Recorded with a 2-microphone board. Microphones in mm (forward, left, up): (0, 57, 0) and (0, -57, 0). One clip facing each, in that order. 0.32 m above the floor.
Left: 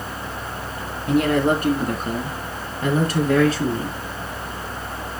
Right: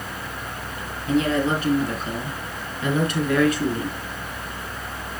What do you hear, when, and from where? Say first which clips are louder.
1.1 s a woman speaking: left 3 dB; 60° left (ahead or behind), 3.5 m; by 4.0 s 25° left (ahead or behind), 3.5 m